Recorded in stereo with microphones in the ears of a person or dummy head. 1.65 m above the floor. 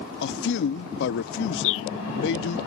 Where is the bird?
80° left.